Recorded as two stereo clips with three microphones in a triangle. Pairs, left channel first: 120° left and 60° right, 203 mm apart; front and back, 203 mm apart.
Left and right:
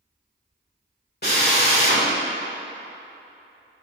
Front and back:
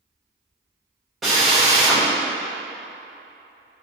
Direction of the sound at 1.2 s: 90° left.